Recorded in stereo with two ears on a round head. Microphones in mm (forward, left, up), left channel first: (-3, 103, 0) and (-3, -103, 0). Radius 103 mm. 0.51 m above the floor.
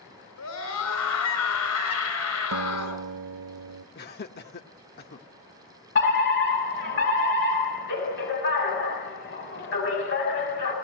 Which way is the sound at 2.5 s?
85° right.